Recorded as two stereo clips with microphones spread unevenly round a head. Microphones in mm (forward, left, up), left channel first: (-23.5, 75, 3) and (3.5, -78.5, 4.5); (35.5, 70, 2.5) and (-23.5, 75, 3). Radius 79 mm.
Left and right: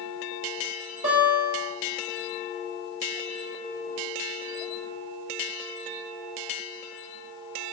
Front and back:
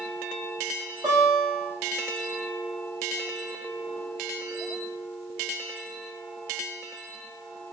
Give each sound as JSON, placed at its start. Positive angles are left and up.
{"t": 1.0, "sound": "a guitar", "azimuth_deg": -130, "distance_m": 4.5}